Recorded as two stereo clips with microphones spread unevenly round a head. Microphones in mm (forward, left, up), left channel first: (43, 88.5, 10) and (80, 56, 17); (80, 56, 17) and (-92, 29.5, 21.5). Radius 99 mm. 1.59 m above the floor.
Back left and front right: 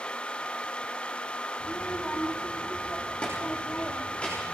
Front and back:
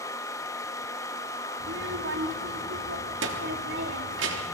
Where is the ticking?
No ticking in this recording.